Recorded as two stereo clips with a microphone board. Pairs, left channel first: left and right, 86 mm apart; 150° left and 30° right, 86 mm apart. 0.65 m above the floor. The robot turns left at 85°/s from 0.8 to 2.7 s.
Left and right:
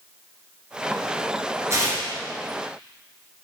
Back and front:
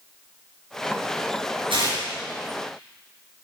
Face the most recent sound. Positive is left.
turn(degrees=-120)